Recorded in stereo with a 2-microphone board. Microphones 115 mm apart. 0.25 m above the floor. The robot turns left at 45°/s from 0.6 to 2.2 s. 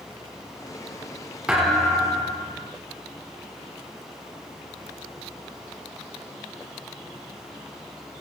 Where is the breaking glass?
I don't hear breaking glass.